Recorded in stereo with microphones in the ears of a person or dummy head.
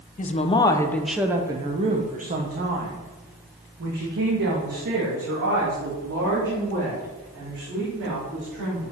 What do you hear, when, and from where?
0.2 s a woman speaking: 35° left (ahead or behind), 0.8 m; by 8.9 s 75° right (ahead or behind), 4.5 m